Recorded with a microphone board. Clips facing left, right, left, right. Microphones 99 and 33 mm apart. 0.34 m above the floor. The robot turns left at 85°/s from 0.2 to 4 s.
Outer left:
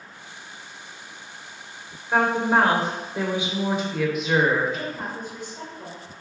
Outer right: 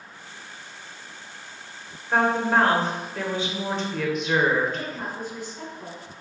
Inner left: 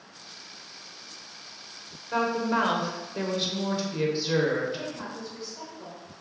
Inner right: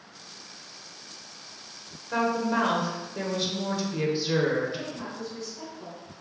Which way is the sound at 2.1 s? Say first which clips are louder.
Outer left 1 dB, even; centre (ahead or behind).